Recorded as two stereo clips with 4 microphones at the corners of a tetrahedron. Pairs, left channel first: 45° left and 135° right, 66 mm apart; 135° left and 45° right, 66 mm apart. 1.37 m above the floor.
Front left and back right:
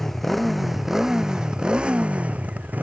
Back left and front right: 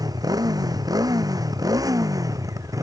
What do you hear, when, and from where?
0.0 s a motorcycle: 40° right; by 2.8 s 70° right